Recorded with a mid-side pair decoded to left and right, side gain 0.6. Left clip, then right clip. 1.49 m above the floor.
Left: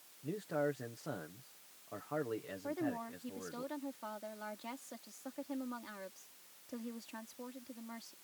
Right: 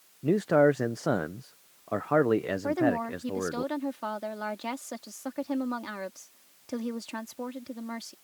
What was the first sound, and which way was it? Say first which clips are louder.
A man speaking: right 15 dB; 65° right.